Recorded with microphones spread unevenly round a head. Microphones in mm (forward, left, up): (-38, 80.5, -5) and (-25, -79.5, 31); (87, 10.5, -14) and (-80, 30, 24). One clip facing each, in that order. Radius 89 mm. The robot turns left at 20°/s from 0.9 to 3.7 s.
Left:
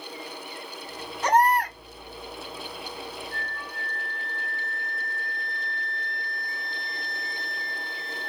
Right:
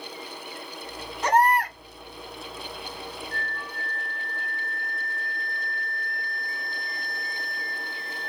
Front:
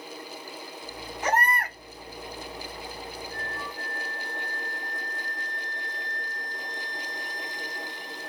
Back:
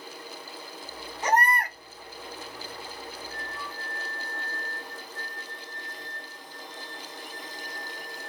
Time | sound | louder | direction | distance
1.2 | a baby crying | even, back 2 dB | 140° right | 1.7 m
3.3 | a flute | right 1 dB, front 3 dB | 170° left | 1.0 m